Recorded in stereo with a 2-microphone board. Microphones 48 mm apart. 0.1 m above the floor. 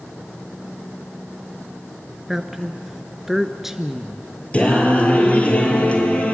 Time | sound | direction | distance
2.3 | a woman speaking | 5° right (ahead or behind) | 1.1 m
4.5 | singing | 30° left (ahead or behind) | 2.5 m